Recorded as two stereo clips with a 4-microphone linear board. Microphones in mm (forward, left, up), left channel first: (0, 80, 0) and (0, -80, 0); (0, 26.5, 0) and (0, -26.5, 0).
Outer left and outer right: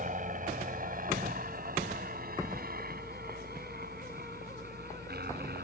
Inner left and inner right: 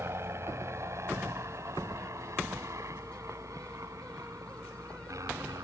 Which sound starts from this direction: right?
A helicopter, at 0.0 s.